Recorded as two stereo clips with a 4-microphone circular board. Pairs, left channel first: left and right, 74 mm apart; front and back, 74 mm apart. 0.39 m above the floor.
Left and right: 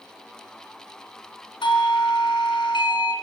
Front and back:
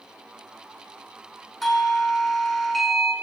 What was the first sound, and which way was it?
A doorbell, 90° left.